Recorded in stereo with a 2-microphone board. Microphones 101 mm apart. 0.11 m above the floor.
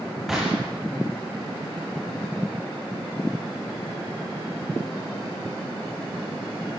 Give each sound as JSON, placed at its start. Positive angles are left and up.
{"t": 0.3, "sound": "a gunshot", "side_deg": -5, "distance_m": 7.0}